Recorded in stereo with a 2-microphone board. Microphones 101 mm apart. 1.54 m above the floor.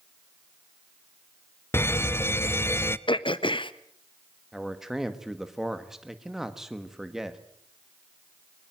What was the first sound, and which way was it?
An alarm, 25° left (ahead or behind).